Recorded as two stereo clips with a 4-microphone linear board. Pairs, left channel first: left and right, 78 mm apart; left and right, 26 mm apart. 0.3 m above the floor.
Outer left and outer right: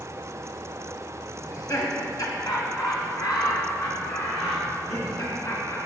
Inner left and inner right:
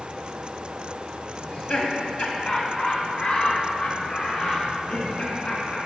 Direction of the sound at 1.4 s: 45° left (ahead or behind).